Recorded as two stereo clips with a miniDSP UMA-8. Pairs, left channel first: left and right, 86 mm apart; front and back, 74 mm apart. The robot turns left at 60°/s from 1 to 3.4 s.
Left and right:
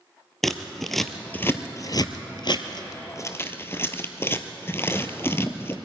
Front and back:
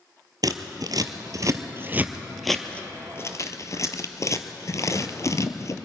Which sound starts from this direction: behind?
Scissors, at 0.4 s.